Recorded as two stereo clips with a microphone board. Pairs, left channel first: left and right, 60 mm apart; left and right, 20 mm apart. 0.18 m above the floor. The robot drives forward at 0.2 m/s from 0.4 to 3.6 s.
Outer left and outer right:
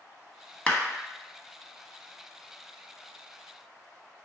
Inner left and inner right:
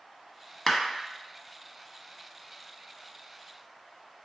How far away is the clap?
About 0.8 m.